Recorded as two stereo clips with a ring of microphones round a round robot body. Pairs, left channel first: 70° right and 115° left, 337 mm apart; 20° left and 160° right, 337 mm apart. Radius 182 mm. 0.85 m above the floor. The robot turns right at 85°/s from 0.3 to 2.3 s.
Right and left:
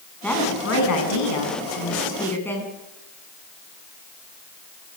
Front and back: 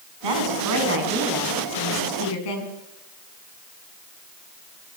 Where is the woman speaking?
155° right, 7.5 m; by 2.7 s 15° left, 7.5 m.